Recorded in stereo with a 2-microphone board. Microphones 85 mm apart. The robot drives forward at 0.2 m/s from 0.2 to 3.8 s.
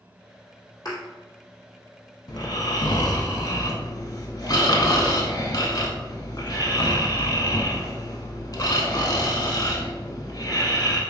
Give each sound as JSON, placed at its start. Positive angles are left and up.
{"t": 0.8, "sound": "a thud", "side_deg": 50, "distance_m": 1.9}
{"t": 2.3, "sound": "snoring", "side_deg": 60, "distance_m": 0.6}